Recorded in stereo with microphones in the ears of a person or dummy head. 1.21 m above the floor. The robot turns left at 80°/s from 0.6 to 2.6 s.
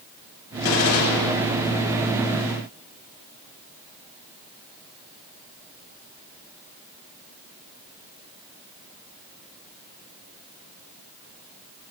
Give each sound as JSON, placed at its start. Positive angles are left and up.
{"t": 0.6, "sound": "a gunshot", "azimuth_deg": 110, "distance_m": 1.4}